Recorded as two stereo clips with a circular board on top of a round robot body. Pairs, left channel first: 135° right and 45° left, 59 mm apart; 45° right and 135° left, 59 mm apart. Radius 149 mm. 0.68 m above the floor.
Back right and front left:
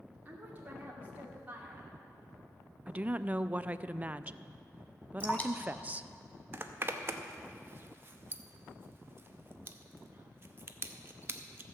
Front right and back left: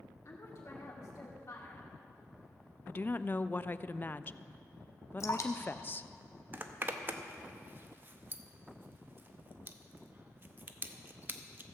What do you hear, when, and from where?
0.2 s a woman speaking: 15° right, 2 m
2.9 s a woman speaking: 10° right, 0.5 m
5.2 s dripping: 70° right, 1.1 m
6.5 s a zipper: 90° left, 0.9 m